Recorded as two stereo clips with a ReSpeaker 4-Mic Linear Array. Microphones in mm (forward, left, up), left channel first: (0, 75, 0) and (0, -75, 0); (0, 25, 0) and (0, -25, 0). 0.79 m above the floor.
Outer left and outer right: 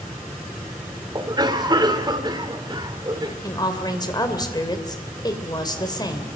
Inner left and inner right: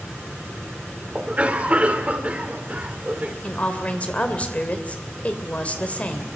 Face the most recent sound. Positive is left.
turn(degrees=30)  # may be behind; listen again after turning